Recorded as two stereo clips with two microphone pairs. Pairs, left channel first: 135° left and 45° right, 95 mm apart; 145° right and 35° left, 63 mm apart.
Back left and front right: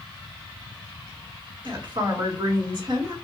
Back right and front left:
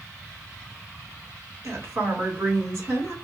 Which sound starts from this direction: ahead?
A woman speaking, at 1.6 s.